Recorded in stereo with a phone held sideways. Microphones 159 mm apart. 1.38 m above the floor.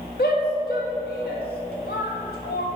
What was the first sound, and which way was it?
A shout, 80° left.